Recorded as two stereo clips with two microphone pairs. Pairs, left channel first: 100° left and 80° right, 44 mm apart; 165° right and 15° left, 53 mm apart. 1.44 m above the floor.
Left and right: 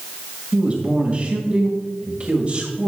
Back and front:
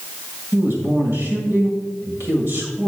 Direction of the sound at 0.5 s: 20° right.